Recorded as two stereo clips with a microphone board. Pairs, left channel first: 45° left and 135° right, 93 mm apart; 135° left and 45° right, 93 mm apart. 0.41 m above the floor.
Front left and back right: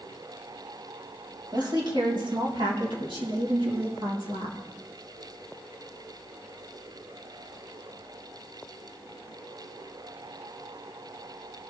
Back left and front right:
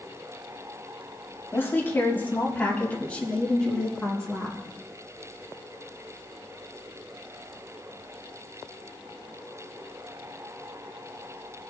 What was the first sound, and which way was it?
A woman speaking, 165° right.